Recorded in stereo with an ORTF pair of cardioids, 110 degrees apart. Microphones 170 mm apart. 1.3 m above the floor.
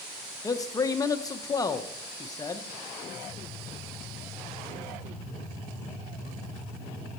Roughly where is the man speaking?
Ahead.